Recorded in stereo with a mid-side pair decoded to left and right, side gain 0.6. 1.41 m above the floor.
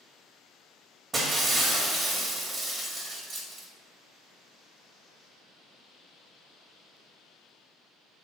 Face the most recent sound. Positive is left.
turn(degrees=-30)